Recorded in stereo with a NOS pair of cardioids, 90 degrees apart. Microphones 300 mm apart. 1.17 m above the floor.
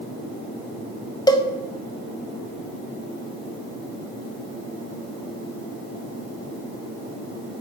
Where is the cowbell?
10° left, 1.1 m.